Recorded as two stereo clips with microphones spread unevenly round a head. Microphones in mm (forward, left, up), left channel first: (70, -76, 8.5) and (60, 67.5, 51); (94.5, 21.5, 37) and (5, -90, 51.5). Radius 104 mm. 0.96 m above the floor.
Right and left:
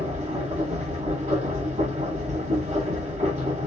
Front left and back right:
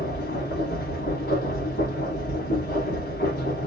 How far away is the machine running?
About 1.4 m.